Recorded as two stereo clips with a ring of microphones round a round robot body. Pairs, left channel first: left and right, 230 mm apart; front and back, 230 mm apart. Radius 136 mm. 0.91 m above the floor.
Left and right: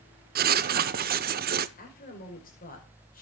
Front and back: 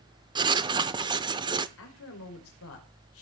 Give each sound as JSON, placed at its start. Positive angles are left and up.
{"t": 0.3, "sound": "writing", "azimuth_deg": -115, "distance_m": 0.6}
{"t": 1.8, "sound": "a woman speaking", "azimuth_deg": 35, "distance_m": 5.0}